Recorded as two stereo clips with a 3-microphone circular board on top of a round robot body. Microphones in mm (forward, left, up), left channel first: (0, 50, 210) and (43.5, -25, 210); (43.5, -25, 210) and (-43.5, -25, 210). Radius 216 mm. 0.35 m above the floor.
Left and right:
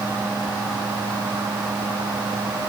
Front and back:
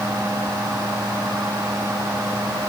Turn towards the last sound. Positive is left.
No sound to turn to.